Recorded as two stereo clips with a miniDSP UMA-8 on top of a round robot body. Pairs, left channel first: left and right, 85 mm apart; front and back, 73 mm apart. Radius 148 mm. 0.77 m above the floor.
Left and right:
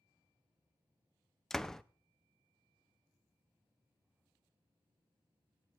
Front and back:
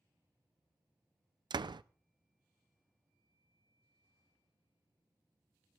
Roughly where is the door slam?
Behind.